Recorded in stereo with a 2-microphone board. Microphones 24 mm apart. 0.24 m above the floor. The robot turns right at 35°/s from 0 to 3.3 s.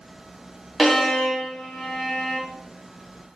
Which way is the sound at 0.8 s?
10° left (ahead or behind).